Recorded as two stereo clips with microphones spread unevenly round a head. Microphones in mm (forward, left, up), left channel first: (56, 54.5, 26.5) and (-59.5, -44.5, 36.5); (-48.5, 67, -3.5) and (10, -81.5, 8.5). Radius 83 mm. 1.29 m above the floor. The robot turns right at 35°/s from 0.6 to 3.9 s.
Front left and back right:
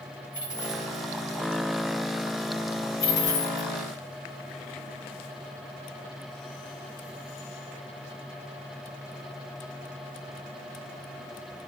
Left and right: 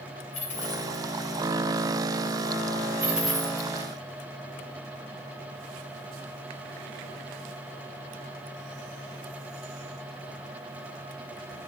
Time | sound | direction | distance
0.3 | a dropped coin | 160° left | 2.5 m
3.0 | a dropped coin | 10° left | 1.7 m